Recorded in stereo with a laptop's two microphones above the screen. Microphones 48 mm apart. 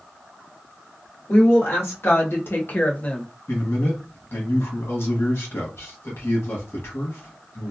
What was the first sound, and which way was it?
A woman speaking, 70° left (ahead or behind).